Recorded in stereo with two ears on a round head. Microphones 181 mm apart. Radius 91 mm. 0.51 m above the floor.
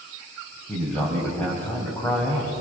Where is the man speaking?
10° left (ahead or behind), 4 m.